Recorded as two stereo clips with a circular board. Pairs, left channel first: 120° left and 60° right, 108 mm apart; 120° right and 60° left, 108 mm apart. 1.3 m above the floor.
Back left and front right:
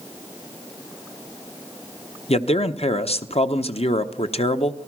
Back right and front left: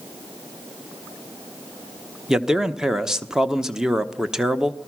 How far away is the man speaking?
About 1.0 m.